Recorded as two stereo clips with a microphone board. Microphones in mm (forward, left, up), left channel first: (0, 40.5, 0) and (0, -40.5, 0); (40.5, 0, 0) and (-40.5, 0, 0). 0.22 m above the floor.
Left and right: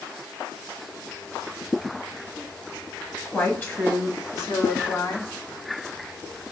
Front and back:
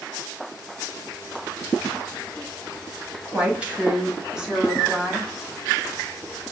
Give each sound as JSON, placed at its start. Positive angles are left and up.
{"t": 3.2, "sound": "a woman speaking", "azimuth_deg": 140, "distance_m": 1.1}